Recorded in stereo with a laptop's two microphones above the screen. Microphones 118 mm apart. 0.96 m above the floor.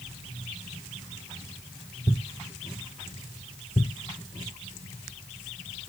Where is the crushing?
No crushing in this recording.